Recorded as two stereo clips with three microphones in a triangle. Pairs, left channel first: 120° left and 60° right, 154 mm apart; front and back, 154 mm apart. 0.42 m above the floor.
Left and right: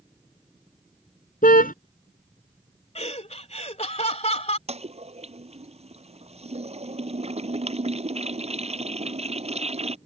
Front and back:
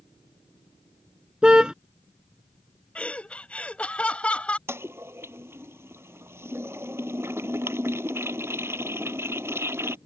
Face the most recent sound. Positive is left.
turn(degrees=-105)